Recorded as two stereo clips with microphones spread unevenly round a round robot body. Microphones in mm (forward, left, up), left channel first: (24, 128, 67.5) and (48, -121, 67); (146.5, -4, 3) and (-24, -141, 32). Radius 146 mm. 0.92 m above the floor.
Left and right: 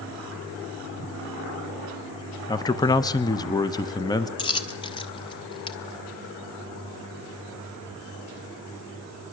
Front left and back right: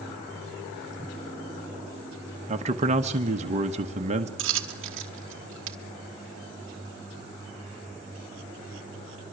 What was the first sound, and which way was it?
A man speaking, 160° left.